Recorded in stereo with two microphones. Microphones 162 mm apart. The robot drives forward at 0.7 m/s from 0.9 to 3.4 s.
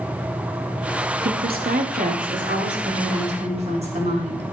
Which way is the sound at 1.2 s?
70° right (ahead or behind).